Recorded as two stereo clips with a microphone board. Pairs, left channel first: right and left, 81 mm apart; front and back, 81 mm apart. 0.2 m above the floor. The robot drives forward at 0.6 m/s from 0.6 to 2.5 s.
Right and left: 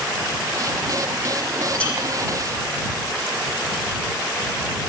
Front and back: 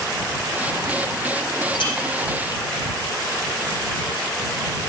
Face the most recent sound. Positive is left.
turn(degrees=-15)